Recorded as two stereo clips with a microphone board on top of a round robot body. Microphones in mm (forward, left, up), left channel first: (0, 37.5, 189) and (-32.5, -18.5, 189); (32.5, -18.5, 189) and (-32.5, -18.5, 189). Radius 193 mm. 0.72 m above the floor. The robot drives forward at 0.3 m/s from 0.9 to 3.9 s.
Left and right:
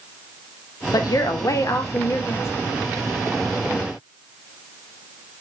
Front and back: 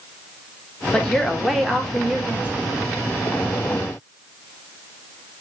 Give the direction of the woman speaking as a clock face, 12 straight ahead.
9 o'clock.